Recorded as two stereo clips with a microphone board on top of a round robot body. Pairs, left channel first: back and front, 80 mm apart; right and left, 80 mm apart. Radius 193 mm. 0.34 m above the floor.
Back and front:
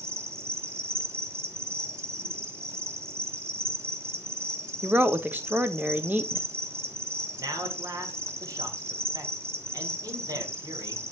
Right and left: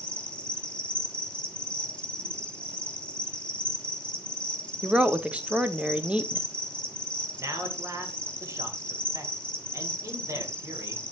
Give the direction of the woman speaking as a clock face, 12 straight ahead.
11 o'clock.